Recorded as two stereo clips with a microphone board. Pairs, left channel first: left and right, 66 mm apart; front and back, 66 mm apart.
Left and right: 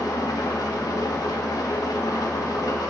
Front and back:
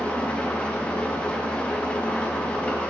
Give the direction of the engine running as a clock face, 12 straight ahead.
10 o'clock.